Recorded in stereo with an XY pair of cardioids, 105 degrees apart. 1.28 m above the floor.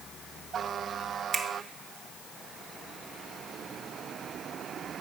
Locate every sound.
1.3 s a finger snap: 30° right, 0.9 m